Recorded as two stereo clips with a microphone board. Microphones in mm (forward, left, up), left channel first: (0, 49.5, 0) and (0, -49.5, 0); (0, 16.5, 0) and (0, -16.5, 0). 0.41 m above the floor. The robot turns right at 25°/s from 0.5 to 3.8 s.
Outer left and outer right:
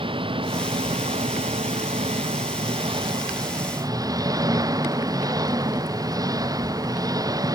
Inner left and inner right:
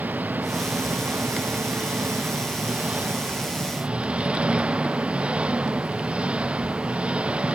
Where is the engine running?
120° right; by 7.6 s 40° right.